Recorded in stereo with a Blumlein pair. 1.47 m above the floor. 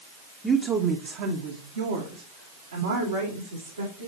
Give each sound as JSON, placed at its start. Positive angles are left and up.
{"t": 0.4, "sound": "a woman speaking", "azimuth_deg": -5, "distance_m": 1.0}